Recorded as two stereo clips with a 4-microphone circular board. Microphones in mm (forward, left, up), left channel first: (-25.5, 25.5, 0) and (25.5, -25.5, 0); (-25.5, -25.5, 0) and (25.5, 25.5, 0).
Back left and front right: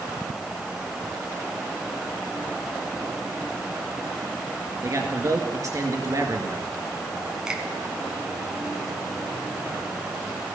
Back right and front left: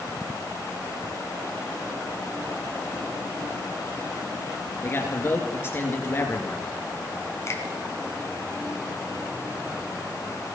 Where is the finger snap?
120° right, 1.9 m.